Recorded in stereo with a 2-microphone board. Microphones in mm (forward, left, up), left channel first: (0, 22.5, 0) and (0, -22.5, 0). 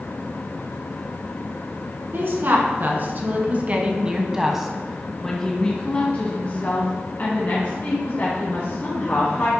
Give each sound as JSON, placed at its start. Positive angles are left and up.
{"t": 2.1, "sound": "a woman speaking", "side_deg": -55, "distance_m": 2.0}